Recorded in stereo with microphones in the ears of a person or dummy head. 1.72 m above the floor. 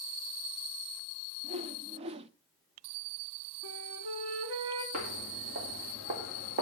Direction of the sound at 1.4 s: 30° right (ahead or behind).